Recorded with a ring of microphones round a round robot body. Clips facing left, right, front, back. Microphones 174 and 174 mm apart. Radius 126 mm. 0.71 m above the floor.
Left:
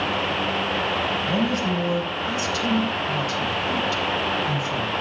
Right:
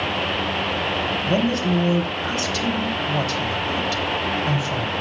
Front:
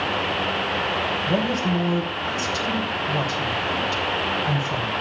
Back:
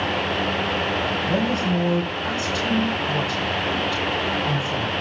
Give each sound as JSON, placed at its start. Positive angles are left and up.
{"t": 1.3, "sound": "a woman speaking", "azimuth_deg": -75, "distance_m": 3.5}